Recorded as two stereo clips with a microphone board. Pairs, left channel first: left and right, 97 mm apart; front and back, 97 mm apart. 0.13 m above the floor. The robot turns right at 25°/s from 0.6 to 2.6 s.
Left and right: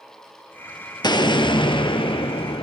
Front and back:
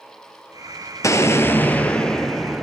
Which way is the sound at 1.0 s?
55° left.